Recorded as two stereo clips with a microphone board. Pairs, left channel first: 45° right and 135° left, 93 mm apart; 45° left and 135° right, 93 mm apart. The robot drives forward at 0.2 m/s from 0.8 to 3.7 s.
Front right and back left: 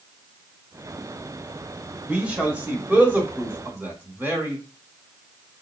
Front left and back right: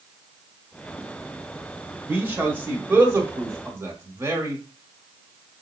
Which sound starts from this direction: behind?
A man speaking, at 2.1 s.